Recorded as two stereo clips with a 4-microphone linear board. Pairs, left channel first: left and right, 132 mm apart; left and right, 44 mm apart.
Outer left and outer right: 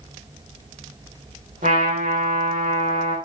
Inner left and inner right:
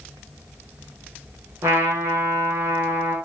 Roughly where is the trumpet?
Right.